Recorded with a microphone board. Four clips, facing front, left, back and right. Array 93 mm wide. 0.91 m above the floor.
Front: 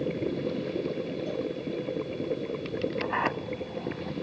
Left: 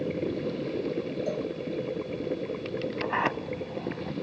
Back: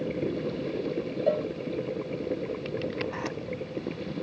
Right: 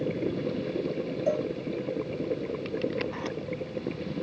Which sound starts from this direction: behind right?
A cowbell, at 1.3 s.